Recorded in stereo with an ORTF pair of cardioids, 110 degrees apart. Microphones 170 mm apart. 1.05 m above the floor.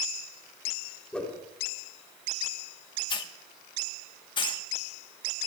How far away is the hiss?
About 1.0 m.